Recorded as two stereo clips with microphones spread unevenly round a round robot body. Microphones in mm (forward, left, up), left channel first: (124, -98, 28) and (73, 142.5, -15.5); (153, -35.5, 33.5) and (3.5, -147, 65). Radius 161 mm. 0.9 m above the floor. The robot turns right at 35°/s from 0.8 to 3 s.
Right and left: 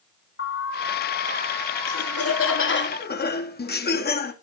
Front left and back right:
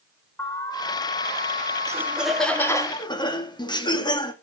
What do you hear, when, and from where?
0.4 s an alarm: 40° right, 6 m; by 2.9 s 35° left, 6 m
1.9 s laughter: 65° right, 2 m; by 4.3 s 25° right, 2 m